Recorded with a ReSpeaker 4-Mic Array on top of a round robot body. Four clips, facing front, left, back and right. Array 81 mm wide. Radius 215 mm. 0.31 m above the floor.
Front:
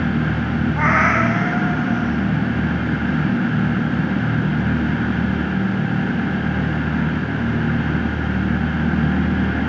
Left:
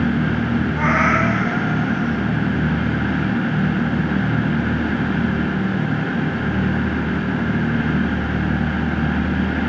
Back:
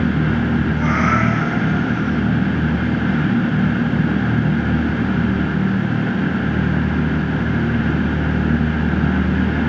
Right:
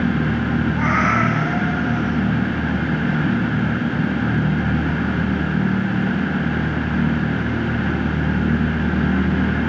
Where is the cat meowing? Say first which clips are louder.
Left 2 dB, front 3 dB; 5° left, 1.7 m.